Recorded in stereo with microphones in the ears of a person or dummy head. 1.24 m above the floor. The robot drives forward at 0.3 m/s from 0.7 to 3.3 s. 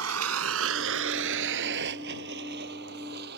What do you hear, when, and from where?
0.0 s a vehicle: 85° right; by 3.4 s 55° right (ahead or behind)